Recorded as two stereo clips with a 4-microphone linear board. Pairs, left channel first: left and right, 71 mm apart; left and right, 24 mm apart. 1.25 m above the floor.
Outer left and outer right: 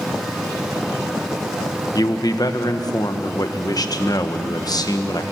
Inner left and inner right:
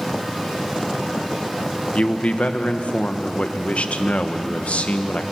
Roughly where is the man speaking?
Left.